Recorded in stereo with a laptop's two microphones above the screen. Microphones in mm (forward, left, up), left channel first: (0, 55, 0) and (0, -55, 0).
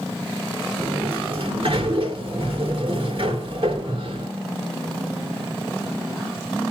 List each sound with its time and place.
0.8 s a sliding door: 55° right (ahead or behind), 2.5 m